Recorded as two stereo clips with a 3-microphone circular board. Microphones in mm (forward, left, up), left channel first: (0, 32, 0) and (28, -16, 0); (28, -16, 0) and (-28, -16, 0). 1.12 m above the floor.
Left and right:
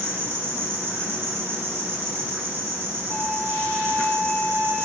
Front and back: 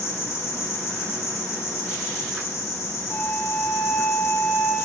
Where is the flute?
35° left, 1.7 m.